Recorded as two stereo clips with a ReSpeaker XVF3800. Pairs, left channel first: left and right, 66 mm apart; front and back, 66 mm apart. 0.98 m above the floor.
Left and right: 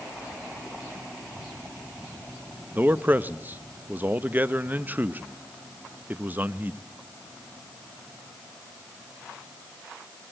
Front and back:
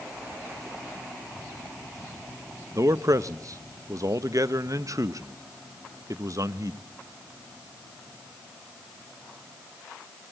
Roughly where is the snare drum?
I don't hear a snare drum.